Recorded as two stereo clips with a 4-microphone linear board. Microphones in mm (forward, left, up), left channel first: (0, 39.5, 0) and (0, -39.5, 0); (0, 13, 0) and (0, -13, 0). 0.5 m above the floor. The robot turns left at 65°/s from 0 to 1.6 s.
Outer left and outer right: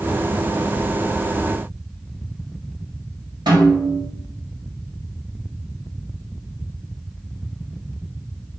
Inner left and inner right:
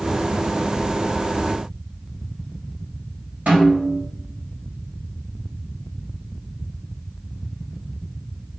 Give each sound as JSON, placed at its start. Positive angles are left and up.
{"t": 3.5, "sound": "a snare drum", "side_deg": -65, "distance_m": 2.5}